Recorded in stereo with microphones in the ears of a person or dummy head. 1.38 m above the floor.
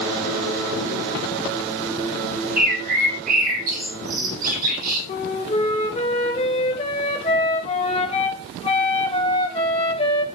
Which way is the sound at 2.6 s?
50° right (ahead or behind).